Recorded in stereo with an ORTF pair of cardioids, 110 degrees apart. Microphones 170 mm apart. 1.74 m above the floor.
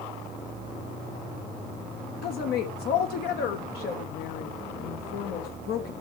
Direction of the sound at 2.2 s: 70° left.